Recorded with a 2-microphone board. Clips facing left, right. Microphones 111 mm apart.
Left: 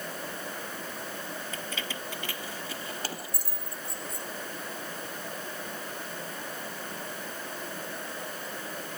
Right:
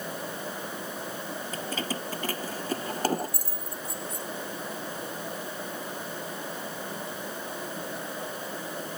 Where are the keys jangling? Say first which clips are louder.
Right 5 dB; 35° right (ahead or behind); by 4.3 s 45° right (ahead or behind).